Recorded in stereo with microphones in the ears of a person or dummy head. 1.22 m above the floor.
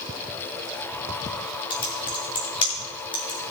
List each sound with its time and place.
1.7 s typing on a keyboard: 35° left (ahead or behind), 2.0 m